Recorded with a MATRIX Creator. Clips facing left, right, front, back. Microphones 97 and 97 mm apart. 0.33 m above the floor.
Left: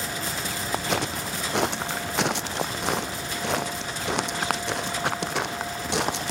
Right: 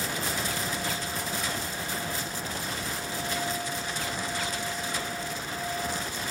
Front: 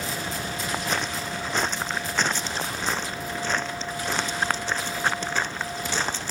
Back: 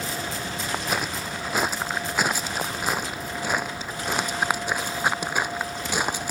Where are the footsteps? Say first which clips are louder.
Left 6 dB, back 1 dB; 95° left; by 6.3 s 100° left.